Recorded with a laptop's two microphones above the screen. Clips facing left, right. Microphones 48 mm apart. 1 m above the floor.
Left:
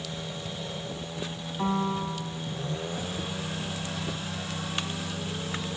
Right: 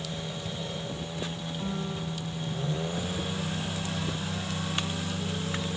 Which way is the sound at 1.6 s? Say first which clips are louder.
Left 8 dB; 55° left (ahead or behind).